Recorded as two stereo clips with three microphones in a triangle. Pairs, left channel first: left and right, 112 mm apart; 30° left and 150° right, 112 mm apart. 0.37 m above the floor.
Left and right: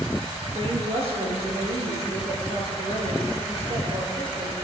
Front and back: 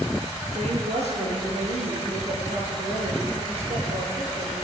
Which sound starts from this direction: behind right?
A woman speaking, at 0.6 s.